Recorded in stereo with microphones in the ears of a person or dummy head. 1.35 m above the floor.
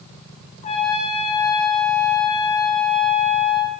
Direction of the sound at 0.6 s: 40° left (ahead or behind).